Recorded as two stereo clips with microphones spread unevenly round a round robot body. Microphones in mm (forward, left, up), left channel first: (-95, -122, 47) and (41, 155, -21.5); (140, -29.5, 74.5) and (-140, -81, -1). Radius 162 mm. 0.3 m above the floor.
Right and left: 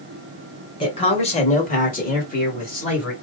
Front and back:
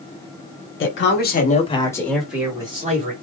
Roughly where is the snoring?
No snoring in this recording.